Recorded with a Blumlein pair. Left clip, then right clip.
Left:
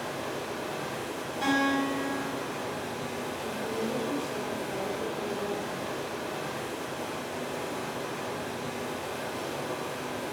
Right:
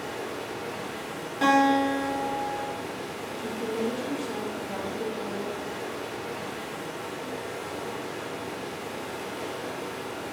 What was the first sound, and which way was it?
Running water, 50° left.